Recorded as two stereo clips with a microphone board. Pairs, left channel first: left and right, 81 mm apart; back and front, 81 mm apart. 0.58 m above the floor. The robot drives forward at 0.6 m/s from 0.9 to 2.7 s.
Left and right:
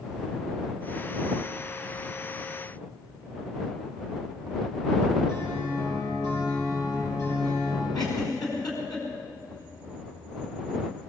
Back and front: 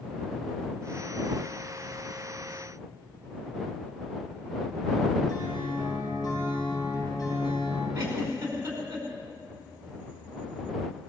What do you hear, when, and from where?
5.3 s a guitar: 140° left, 9.5 m
8.0 s a giggle: 55° left, 4.5 m